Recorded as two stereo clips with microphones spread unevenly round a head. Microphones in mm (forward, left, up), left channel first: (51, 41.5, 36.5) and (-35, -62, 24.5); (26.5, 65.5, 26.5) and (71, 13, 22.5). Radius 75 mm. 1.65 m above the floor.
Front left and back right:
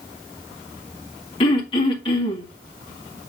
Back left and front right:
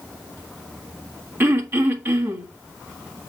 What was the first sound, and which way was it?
Throat clearing, straight ahead.